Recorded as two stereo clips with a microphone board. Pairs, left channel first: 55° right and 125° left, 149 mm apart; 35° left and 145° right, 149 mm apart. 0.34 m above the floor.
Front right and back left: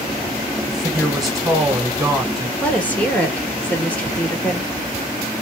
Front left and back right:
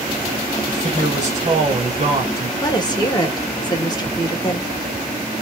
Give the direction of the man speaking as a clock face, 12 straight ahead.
5 o'clock.